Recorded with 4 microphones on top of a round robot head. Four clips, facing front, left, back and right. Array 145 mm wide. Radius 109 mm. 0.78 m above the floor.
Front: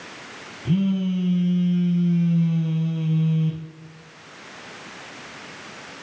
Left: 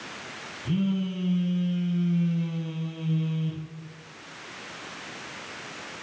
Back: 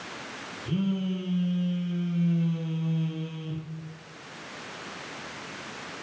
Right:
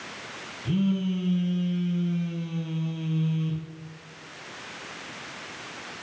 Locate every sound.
0.7 s a phone buzzing: 10° left, 2.5 m